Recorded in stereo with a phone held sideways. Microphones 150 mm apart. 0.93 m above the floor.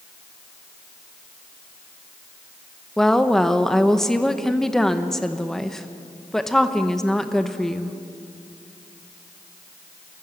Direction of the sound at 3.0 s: 5° left (ahead or behind).